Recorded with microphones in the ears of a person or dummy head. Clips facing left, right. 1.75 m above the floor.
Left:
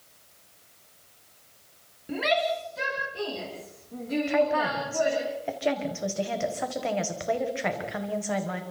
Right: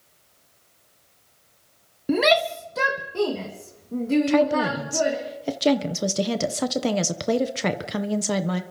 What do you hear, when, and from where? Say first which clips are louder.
2.1 s a shout: right 6 dB; 60° right (ahead or behind), 1.1 m; by 5.2 s 40° right (ahead or behind), 3.5 m
4.3 s a woman speaking: right 4 dB; 50° right (ahead or behind), 1.4 m